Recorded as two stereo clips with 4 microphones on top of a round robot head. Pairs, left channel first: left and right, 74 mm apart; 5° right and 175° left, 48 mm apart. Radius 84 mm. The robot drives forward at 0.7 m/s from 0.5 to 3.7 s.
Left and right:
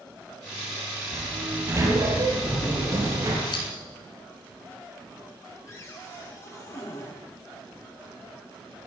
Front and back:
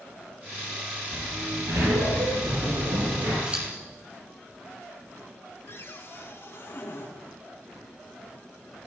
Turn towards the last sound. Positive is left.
turn(degrees=30)